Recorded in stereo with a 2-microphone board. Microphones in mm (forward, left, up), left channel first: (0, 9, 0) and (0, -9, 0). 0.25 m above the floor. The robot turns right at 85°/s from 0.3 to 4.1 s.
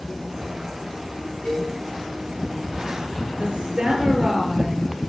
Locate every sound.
1.4 s a cowbell: 65° left (ahead or behind), 7.5 m; by 1.7 s 45° left (ahead or behind), 7.5 m
3.4 s a woman speaking: 95° right, 4 m; by 4.9 s 35° right, 4 m